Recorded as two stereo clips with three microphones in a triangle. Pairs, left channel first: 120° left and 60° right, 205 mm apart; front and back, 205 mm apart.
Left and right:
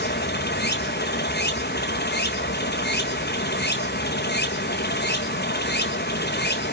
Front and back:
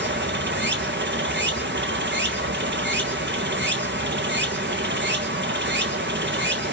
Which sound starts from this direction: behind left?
Running water, at 0.0 s.